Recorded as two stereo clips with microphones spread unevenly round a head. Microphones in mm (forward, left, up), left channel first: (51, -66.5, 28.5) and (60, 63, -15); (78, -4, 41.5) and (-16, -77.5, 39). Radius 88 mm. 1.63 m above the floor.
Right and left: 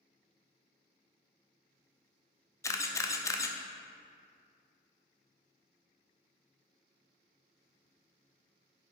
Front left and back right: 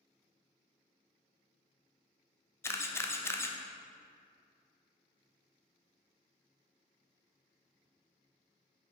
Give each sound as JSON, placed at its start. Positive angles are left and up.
{"t": 2.6, "sound": "a camera shutter", "azimuth_deg": -30, "distance_m": 0.6}